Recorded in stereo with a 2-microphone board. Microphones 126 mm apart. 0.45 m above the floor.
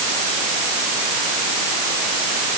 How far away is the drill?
I don't hear a drill.